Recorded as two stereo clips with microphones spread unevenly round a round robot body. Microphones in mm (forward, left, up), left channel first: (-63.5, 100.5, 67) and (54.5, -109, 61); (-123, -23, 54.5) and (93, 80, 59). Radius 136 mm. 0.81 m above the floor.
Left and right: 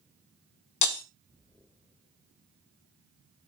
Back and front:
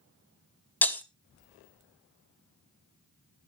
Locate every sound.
0.8 s breaking glass: 125° left, 0.9 m